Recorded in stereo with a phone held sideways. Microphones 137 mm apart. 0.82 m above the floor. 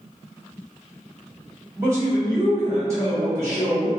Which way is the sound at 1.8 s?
20° right (ahead or behind).